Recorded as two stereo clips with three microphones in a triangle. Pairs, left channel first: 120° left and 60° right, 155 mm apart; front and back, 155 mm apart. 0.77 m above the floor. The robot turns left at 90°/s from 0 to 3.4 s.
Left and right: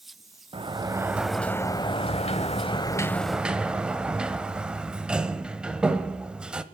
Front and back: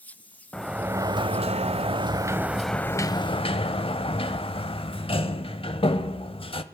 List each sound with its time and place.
0.5 s a sliding door: 80° right, 0.7 m; by 6.6 s 20° left, 0.7 m